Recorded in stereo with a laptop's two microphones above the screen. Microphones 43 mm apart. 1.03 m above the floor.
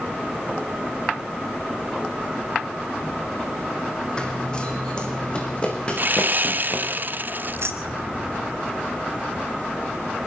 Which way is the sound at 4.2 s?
20° left (ahead or behind).